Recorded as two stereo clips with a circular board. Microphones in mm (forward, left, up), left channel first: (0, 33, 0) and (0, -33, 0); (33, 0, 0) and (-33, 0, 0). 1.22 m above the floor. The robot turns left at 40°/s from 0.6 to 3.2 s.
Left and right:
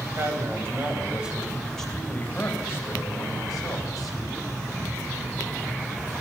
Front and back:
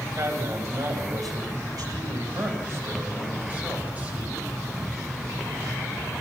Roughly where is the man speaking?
Behind right.